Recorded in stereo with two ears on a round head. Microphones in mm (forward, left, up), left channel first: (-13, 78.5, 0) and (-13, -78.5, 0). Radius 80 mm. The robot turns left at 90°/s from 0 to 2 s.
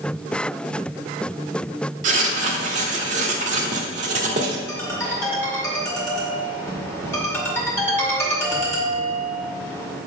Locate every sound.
2.0 s writing: 40° right (ahead or behind), 1.1 m
4.7 s a ringtone: 15° left (ahead or behind), 2 m